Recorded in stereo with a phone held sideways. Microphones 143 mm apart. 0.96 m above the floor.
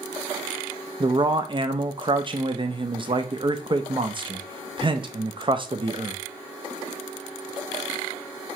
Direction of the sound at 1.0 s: 35° right (ahead or behind).